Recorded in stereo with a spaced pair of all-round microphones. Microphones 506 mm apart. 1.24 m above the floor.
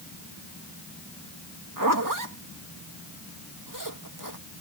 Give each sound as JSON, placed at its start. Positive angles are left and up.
{"t": 1.8, "sound": "a zipper", "side_deg": -40}